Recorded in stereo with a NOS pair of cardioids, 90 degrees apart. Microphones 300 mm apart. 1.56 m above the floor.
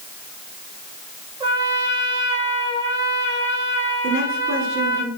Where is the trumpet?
15° right, 6 m.